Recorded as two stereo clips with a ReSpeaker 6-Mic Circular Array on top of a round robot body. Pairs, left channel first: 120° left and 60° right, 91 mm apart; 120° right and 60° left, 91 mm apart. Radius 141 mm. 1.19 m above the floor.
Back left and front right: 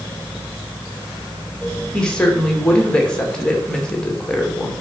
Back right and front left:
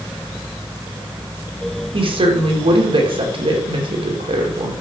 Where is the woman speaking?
40° left, 2 m.